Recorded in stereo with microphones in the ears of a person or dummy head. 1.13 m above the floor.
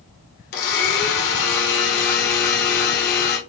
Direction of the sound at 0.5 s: 55° left (ahead or behind).